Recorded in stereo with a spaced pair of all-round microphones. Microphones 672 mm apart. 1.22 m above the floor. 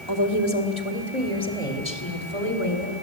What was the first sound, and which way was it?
A woman speaking, 40° left (ahead or behind).